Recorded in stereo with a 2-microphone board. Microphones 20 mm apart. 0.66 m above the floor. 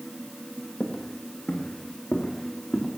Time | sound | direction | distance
0.8 | footsteps | 60° left (ahead or behind) | 2 m